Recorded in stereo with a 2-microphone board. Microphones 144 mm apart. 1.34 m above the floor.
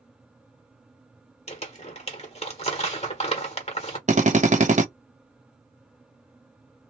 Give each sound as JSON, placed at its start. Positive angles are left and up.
{"t": 1.5, "sound": "crumpling", "side_deg": 45, "distance_m": 1.2}
{"t": 4.1, "sound": "a drill", "side_deg": -55, "distance_m": 0.8}